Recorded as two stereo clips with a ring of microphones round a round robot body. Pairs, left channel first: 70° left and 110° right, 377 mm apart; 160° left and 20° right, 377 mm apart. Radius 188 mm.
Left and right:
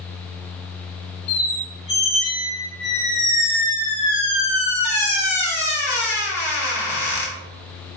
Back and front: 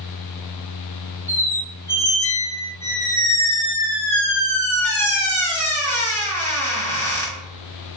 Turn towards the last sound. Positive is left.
turn(degrees=75)